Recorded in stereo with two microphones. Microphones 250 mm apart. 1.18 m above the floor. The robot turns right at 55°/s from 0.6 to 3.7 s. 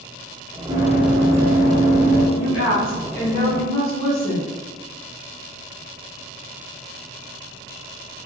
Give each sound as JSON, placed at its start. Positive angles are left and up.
{"t": 0.7, "sound": "running footsteps", "side_deg": -20, "distance_m": 1.1}
{"t": 2.4, "sound": "a woman speaking", "azimuth_deg": 90, "distance_m": 1.4}